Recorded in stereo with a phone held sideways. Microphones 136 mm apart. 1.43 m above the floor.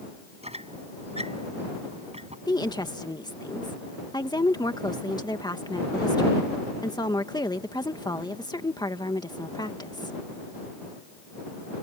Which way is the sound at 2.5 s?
30° left (ahead or behind).